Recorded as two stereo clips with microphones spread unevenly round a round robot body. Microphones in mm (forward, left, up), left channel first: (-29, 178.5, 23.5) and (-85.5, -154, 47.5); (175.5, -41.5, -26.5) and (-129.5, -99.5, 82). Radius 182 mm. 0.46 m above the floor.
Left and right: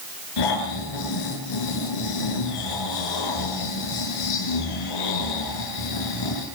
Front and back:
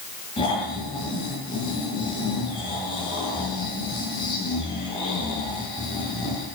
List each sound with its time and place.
0.4 s snoring: 85° left, 8 m